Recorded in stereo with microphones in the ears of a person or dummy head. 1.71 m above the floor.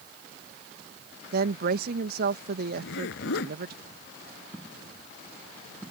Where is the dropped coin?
15° right (ahead or behind).